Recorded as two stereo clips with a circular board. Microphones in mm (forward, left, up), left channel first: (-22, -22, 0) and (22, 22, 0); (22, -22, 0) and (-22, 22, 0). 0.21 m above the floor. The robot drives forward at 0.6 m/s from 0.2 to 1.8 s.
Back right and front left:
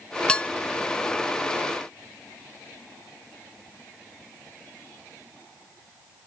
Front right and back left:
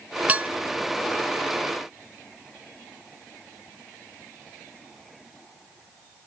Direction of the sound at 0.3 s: 165° left.